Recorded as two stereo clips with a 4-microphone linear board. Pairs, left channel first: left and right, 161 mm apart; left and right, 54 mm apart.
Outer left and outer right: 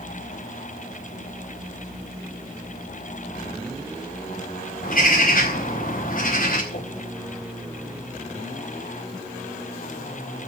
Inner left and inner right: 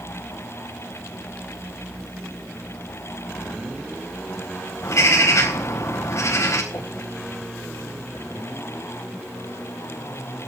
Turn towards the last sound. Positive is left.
turn(degrees=75)  # may be behind; listen again after turning